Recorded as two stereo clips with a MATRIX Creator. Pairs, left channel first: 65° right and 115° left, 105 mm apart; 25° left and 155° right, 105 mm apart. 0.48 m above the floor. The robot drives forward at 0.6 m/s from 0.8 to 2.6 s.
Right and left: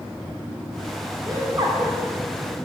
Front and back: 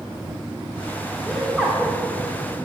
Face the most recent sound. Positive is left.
turn(degrees=150)